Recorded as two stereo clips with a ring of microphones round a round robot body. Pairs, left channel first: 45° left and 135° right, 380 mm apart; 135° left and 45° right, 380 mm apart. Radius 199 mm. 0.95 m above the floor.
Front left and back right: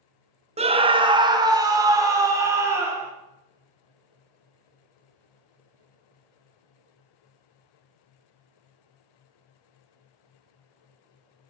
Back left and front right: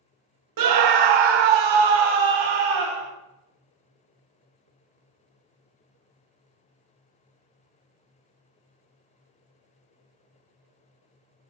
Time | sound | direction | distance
0.6 | a scream | 65° right | 0.8 m